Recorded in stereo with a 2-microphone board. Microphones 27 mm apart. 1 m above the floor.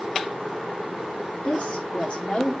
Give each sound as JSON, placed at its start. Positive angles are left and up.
{"t": 1.4, "sound": "a woman speaking", "side_deg": 55, "distance_m": 2.5}